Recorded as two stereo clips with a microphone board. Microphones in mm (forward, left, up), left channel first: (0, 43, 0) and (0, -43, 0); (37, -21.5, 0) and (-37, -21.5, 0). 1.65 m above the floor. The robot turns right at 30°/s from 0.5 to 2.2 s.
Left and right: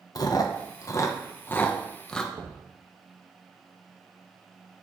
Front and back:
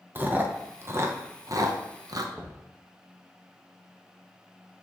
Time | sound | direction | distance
0.1 | chewing | 120° left | 1.0 m
2.3 | knocking | 100° right | 1.7 m